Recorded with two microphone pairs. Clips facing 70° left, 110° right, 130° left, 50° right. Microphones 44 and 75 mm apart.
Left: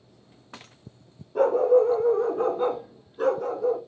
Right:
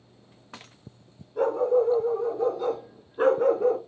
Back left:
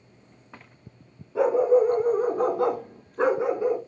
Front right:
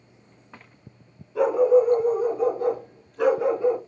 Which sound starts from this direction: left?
A dog barking, at 1.4 s.